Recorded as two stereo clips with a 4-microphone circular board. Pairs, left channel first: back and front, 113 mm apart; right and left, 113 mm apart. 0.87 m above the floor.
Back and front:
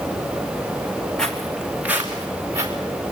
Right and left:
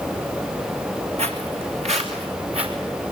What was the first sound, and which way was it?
Footsteps, 95° left.